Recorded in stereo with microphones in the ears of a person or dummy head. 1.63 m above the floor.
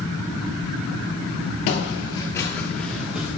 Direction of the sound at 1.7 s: 35° left (ahead or behind).